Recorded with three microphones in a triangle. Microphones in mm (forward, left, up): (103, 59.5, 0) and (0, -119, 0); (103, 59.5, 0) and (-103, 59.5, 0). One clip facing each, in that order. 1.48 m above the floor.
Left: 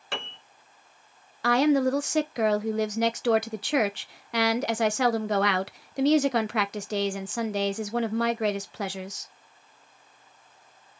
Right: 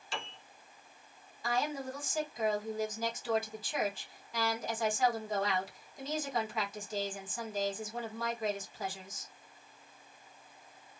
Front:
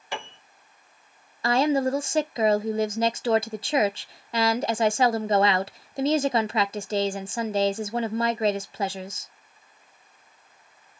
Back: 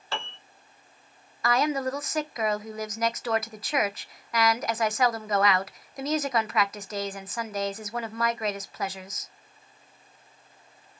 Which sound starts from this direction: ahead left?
A woman speaking, at 1.4 s.